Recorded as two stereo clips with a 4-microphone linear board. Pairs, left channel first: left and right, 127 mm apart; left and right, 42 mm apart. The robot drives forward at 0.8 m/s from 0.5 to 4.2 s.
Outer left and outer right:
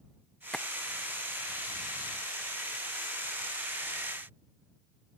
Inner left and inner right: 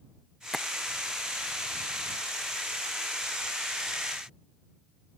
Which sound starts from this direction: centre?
Tapping, at 0.5 s.